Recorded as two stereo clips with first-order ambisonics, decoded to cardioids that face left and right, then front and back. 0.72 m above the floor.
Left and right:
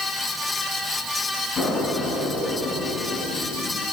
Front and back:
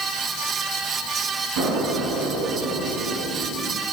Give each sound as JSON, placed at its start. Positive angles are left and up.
{"t": 1.6, "sound": "an explosion", "azimuth_deg": 155, "distance_m": 6.0}